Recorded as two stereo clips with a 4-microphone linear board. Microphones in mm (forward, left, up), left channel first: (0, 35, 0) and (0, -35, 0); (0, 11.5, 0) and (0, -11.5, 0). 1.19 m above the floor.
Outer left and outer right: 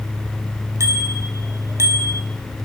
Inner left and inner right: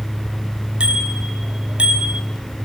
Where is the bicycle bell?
45° right (ahead or behind), 6.5 m; by 2.2 s 50° right (ahead or behind), 5 m.